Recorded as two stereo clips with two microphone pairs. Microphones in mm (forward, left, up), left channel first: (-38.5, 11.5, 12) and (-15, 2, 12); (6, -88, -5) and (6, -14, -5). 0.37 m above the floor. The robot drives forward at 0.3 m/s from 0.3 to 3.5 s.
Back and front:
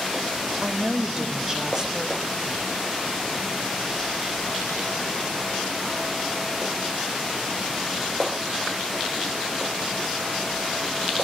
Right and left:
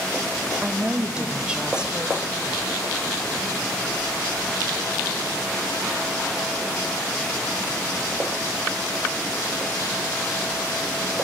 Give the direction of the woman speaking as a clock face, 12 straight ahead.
12 o'clock.